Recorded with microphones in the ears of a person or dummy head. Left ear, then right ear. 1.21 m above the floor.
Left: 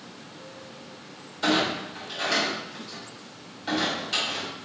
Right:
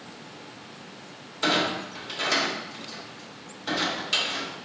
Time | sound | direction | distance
1.4 | a clunk | 25° right (ahead or behind) | 1.7 m